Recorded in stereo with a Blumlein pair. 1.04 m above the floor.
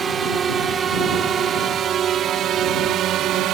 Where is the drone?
20° right; by 3.5 s 35° right.